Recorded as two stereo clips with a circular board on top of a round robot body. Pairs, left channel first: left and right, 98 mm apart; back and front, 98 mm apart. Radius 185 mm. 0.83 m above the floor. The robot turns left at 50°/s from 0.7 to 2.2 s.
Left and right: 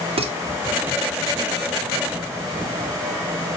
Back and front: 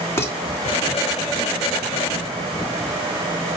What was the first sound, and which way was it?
Dishes clattering, 115° right.